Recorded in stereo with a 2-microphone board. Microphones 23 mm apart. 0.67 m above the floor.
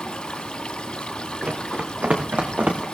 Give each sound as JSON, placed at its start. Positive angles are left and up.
{"t": 0.0, "sound": "running water", "side_deg": 50, "distance_m": 2.0}
{"t": 1.4, "sound": "running footsteps", "side_deg": -75, "distance_m": 4.0}